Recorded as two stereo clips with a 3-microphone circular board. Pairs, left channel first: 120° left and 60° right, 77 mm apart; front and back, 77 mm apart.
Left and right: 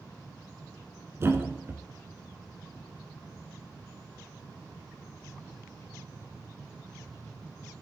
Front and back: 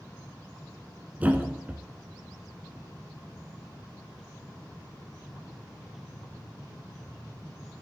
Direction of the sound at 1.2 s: 110° right.